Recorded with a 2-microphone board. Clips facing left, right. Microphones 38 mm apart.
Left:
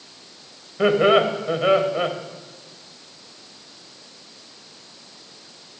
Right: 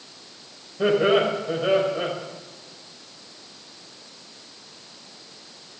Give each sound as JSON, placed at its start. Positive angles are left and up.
{"t": 0.8, "sound": "laughter", "side_deg": 65, "distance_m": 2.5}